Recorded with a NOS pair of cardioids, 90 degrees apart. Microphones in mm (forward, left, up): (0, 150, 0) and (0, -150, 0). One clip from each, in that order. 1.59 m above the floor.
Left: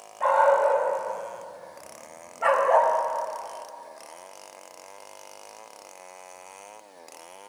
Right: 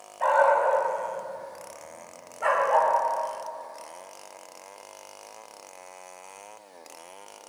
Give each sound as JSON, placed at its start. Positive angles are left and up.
{"t": 0.2, "sound": "a dog barking", "azimuth_deg": -15, "distance_m": 5.0}